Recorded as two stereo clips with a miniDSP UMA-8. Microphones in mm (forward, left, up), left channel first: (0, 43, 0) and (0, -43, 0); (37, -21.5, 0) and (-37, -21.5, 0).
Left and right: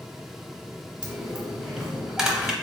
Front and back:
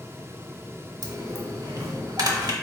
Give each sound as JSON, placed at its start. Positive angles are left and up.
{"t": 1.0, "sound": "a dropped coin", "azimuth_deg": -175, "distance_m": 0.7}